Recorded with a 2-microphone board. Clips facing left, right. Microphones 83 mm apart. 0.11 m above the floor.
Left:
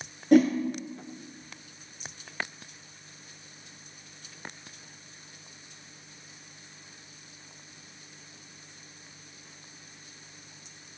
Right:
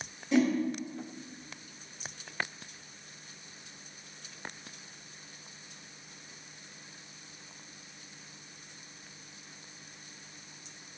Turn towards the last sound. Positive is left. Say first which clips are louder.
# left 7 dB
turn(degrees=55)  # may be behind; listen again after turning